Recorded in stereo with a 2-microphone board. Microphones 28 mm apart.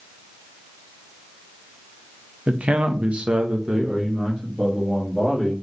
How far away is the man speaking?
About 0.7 m.